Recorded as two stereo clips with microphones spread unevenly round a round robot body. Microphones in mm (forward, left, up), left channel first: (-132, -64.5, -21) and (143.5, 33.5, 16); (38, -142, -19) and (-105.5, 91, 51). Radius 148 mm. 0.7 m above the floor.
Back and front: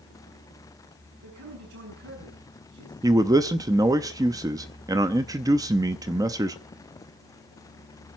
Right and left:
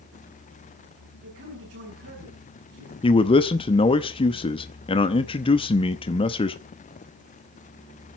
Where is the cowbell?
No cowbell in this recording.